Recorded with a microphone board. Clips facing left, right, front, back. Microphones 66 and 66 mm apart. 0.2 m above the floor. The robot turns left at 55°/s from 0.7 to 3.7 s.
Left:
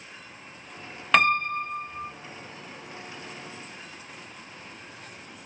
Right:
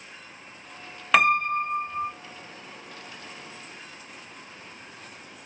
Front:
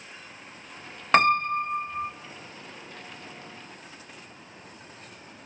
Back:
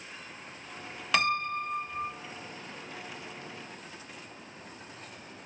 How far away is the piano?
About 0.6 m.